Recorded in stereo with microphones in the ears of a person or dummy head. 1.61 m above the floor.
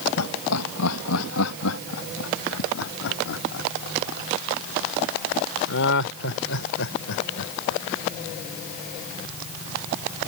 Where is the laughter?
85° left; by 7.8 s 65° left (ahead or behind).